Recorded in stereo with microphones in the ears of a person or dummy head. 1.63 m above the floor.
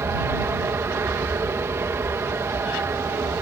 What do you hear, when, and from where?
0.0 s an aircraft: 15° right (ahead or behind)